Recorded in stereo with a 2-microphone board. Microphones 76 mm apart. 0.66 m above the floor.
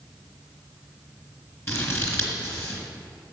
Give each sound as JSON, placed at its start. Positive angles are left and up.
{"t": 1.7, "sound": "scissors", "side_deg": 35, "distance_m": 2.5}